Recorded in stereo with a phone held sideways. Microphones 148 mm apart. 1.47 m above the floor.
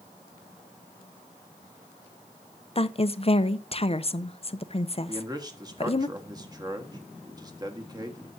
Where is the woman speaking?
40° left (ahead or behind), 0.6 m.